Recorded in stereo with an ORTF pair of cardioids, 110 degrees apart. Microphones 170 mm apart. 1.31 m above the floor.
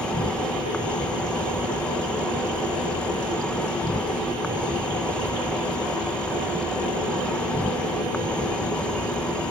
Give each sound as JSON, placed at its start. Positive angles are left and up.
{"t": 0.0, "sound": "an insect", "azimuth_deg": 5}